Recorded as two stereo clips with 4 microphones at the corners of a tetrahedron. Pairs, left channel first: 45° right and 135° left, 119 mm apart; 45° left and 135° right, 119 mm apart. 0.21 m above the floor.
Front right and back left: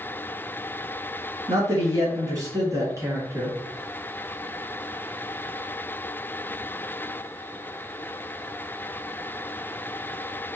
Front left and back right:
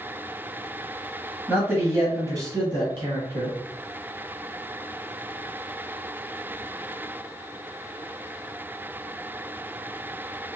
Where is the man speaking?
150° left, 1.2 m; by 3.6 s 160° right, 1.9 m.